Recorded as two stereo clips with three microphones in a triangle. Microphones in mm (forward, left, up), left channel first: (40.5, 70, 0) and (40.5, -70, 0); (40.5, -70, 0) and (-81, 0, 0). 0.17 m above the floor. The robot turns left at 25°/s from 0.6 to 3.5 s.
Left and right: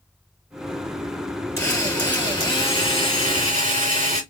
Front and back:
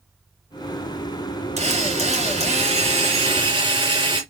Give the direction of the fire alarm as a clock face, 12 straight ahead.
No fire alarm in this recording.